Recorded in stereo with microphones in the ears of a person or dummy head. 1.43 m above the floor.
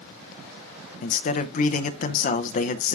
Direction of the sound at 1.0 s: 55° left (ahead or behind).